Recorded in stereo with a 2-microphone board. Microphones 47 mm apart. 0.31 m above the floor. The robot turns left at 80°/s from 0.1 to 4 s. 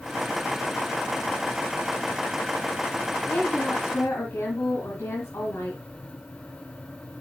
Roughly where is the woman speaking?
Behind left.